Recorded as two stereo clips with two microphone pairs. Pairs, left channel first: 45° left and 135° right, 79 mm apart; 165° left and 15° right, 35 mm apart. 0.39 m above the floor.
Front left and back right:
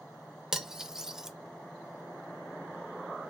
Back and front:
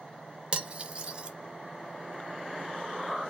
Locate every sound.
0.5 s cutlery clinking: 55° right, 0.6 m